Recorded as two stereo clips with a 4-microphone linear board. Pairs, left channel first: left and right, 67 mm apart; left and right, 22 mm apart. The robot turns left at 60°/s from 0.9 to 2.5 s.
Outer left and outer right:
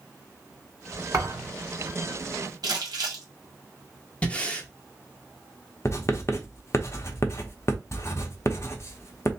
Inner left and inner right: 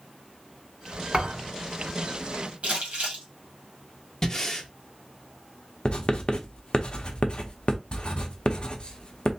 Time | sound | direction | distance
1.1 | a thud | 50° right (ahead or behind) | 2 m
2.6 | crumpling | 80° right | 1.7 m
4.2 | breathing | 20° left (ahead or behind) | 0.7 m
5.8 | writing | 45° left (ahead or behind) | 0.7 m